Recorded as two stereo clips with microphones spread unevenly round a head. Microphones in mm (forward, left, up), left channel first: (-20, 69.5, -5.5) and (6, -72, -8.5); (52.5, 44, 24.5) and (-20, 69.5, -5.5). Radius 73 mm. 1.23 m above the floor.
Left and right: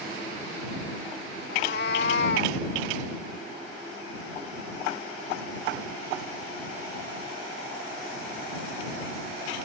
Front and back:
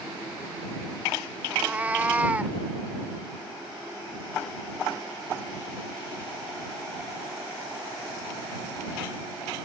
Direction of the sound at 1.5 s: 80° left.